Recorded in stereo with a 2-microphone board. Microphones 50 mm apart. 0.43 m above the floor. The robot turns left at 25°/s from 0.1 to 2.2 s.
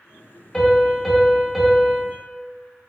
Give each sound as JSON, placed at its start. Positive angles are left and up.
{"t": 0.5, "sound": "a piano", "side_deg": 10, "distance_m": 0.9}